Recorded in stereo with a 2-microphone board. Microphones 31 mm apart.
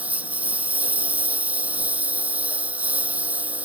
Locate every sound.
0.0 s a lawn mower: 60° right (ahead or behind)